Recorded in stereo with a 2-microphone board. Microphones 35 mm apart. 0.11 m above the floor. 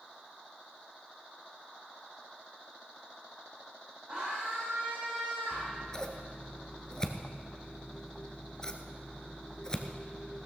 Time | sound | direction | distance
4.1 | a scream | 35° right (ahead or behind) | 6 m
5.5 | scissors | 20° left (ahead or behind) | 1.1 m